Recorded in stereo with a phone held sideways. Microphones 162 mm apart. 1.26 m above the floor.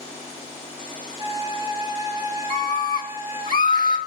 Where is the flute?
20° right (ahead or behind), 1.2 m.